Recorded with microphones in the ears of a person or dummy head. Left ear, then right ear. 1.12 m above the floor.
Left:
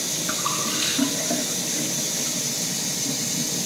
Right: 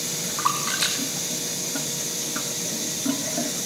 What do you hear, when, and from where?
0.4 s a splash: 15° right (ahead or behind), 0.8 m